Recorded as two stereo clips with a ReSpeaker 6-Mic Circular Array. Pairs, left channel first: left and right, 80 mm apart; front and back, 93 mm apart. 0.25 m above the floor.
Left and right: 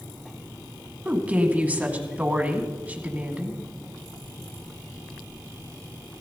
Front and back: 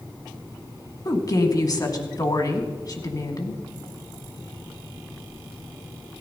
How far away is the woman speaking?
About 2 m.